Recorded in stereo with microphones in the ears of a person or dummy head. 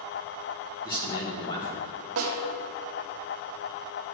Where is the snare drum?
85° right, 1.1 m.